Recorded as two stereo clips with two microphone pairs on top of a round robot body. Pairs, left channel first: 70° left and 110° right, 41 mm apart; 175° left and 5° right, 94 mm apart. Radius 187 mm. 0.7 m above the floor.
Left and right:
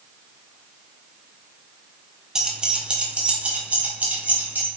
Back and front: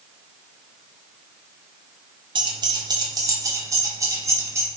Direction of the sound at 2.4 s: 40° right.